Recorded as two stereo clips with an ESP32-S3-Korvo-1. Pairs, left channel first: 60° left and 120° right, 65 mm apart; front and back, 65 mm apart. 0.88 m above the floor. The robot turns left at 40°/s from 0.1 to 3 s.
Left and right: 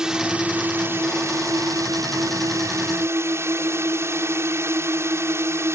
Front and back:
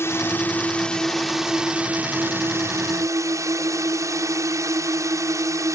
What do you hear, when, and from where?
0.0 s a drone: 40° right; by 5.8 s 160° right